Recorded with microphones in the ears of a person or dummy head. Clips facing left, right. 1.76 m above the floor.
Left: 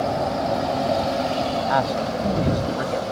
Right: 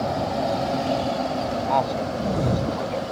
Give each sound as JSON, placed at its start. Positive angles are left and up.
{"t": 1.7, "sound": "a man speaking", "side_deg": 5}